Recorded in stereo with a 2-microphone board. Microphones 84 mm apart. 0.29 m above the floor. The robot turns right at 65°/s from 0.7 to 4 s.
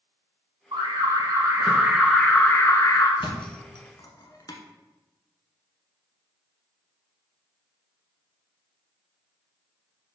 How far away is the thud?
About 1.0 m.